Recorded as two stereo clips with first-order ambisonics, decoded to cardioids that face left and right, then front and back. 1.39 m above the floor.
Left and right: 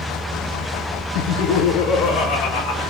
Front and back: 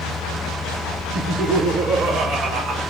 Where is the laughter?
115° left, 0.6 m; by 2.8 s 105° left, 1.4 m.